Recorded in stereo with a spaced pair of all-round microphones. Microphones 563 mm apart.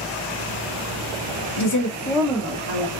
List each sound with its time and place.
1.6 s a woman speaking: 50° left (ahead or behind), 0.6 m; by 2.9 s 25° right (ahead or behind), 1.1 m